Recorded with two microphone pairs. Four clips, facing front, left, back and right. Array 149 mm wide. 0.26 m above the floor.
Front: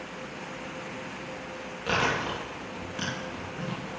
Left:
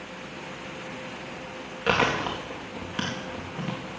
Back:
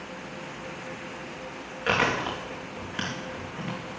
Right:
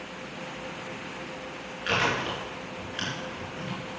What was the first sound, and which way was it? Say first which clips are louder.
Chewing: left 3 dB, back 2 dB; 110° left.